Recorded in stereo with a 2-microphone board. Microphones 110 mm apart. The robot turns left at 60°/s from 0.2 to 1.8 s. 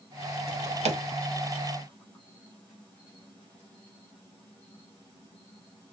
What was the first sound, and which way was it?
A drawer, 65° right (ahead or behind).